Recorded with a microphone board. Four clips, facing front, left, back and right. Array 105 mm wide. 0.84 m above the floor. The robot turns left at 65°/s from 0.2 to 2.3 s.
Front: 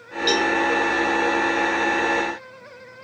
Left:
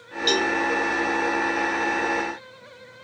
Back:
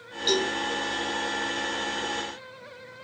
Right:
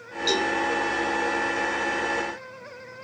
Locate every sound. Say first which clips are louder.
0.3 s a cowbell: left 2 dB, front 5 dB; 50° left, 2.5 m; by 0.5 s 35° left, 2.5 m